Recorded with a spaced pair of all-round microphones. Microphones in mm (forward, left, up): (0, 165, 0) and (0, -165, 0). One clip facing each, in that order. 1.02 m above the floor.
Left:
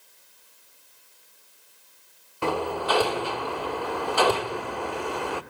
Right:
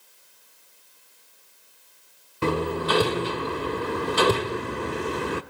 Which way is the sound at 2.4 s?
25° right (ahead or behind).